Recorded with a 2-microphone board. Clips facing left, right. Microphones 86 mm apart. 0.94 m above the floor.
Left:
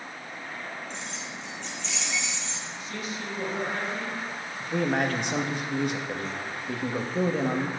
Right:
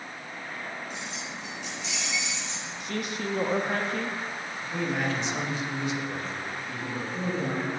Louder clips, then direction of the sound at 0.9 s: Right 1 dB; 5° right (ahead or behind).